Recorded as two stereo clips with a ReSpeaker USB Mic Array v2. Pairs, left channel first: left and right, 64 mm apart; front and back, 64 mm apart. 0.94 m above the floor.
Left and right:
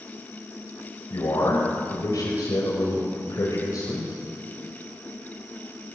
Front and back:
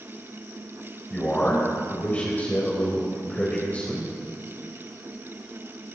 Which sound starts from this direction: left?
A man speaking, at 1.1 s.